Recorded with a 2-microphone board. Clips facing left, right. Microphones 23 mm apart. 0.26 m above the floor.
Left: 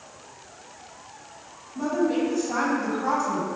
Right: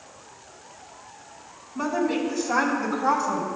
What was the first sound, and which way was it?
A woman speaking, 45° right (ahead or behind).